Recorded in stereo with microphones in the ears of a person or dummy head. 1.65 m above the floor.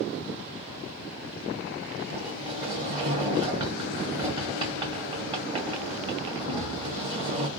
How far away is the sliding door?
About 1.0 m.